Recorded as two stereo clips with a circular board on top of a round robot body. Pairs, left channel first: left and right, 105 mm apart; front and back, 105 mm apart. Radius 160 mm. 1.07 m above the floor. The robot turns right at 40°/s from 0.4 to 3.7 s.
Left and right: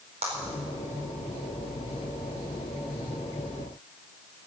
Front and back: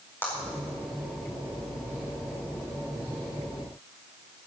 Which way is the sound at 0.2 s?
70° right.